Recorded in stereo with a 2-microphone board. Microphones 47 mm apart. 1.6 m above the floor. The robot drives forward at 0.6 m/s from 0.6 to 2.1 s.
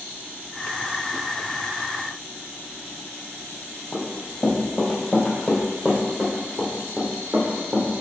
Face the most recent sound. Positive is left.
turn(degrees=-45)  # may be behind; listen again after turning